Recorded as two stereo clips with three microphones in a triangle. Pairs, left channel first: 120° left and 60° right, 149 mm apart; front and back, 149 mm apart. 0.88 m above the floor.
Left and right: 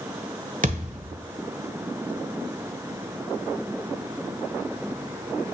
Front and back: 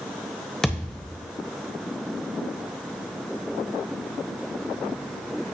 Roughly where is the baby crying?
No baby crying in this recording.